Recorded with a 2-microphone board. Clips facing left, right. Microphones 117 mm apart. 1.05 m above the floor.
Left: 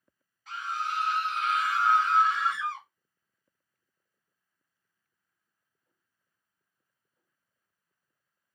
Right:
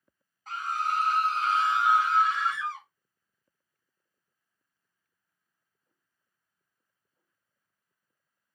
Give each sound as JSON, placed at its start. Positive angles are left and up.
{"t": 0.5, "sound": "a scream", "side_deg": -45, "distance_m": 1.0}